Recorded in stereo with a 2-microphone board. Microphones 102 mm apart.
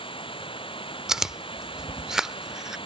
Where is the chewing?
5° right (ahead or behind).